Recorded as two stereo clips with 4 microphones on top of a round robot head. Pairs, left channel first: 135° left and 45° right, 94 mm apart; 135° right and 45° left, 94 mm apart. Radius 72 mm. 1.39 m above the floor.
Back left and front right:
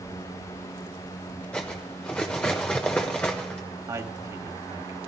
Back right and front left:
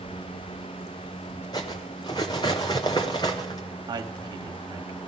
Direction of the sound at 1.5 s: 155° right.